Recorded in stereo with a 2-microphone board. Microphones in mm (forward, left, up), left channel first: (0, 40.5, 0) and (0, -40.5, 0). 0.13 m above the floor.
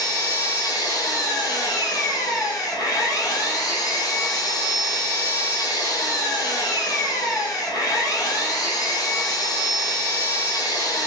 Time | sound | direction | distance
0.0 | an engine running | 50° left (ahead or behind) | 0.9 m